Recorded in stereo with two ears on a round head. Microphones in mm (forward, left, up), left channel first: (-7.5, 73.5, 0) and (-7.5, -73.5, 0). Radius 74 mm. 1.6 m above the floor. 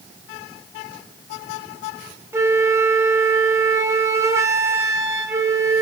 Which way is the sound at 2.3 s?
15° right (ahead or behind).